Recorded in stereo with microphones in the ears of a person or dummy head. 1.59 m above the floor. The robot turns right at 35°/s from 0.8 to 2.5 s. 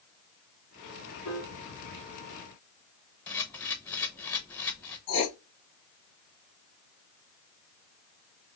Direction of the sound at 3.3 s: 10° left (ahead or behind).